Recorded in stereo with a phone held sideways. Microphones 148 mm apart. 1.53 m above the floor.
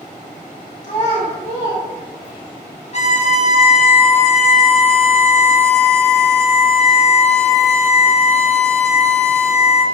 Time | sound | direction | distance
0.8 | a child speaking | 50° left (ahead or behind) | 1.0 m
2.9 | a violin | 45° left (ahead or behind) | 0.6 m